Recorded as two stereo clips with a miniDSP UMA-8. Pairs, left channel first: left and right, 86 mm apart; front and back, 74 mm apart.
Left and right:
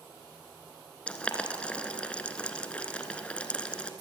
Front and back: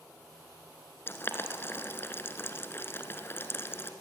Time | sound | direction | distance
1.1 | boiling | 25° left | 1.7 m